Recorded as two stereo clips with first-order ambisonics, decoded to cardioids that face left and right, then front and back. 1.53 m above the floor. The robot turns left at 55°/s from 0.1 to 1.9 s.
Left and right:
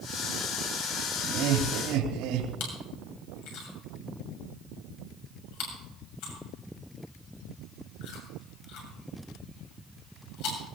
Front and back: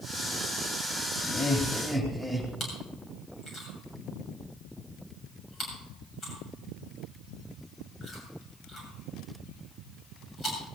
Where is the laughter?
55° right, 2.5 m; by 2.5 s 90° right, 2.5 m.